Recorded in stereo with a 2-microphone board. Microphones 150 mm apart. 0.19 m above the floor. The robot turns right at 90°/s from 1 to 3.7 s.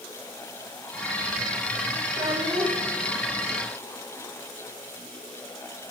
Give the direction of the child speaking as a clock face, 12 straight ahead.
2 o'clock.